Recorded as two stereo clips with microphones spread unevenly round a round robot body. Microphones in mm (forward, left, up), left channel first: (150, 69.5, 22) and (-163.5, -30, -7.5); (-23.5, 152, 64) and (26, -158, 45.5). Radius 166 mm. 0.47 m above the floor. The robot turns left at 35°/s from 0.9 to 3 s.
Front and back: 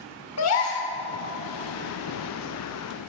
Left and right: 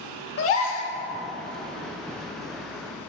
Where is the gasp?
60° left, 1.4 m.